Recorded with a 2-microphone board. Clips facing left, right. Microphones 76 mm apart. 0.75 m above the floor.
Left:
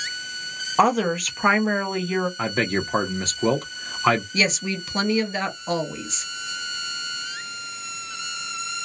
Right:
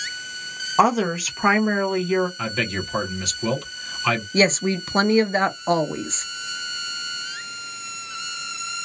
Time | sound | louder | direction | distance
0.8 | a woman speaking | right 1 dB | centre (ahead or behind) | 0.6 m
2.4 | a man speaking | left 3 dB | 35° left (ahead or behind) | 0.7 m
4.3 | a woman speaking | right 5 dB | 35° right (ahead or behind) | 0.6 m